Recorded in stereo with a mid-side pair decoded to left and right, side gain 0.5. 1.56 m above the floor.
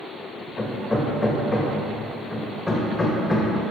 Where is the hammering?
15° left, 2 m.